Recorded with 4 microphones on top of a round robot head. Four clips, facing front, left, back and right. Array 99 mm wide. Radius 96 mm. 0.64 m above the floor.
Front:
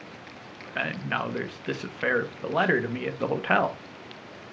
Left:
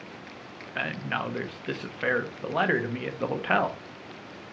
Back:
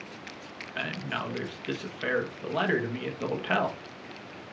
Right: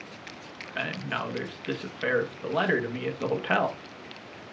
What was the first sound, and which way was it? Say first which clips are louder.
A man speaking: left 1 dB, front 4 dB; 25° left.